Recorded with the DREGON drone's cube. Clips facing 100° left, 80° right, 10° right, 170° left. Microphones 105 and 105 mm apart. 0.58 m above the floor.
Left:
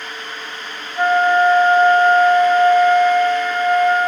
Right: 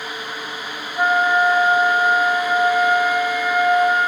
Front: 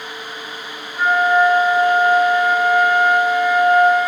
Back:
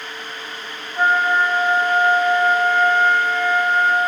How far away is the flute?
About 1.4 m.